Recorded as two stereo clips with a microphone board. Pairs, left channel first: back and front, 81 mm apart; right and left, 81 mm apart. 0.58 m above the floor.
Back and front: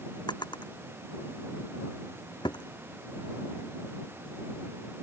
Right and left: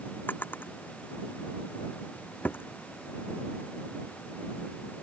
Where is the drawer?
155° right.